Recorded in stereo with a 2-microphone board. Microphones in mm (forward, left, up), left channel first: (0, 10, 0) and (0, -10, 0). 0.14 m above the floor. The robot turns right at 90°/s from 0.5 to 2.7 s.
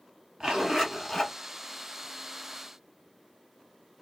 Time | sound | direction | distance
0.4 | a zipper | 45° right | 2.5 m